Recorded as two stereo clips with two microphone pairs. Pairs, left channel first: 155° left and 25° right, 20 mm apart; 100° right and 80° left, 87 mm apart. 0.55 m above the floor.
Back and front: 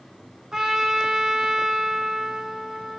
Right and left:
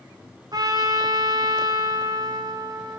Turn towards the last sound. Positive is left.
turn(degrees=40)